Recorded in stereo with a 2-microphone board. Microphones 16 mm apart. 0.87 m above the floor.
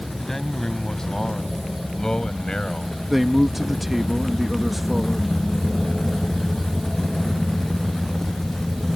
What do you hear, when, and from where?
0.2 s a man speaking: 30° left (ahead or behind); by 2.9 s 70° left (ahead or behind)
3.1 s a man speaking: 5° right (ahead or behind)